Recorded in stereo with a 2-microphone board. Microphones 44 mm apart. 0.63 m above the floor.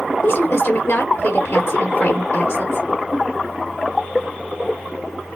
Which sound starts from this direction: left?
A woman speaking, at 0.2 s.